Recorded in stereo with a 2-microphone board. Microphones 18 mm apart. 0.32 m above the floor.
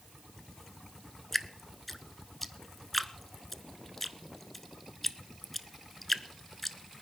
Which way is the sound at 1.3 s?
5° left (ahead or behind).